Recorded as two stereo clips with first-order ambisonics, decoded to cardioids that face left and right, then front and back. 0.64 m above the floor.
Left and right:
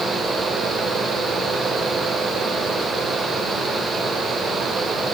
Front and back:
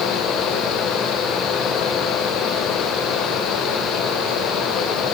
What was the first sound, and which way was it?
Only background noise.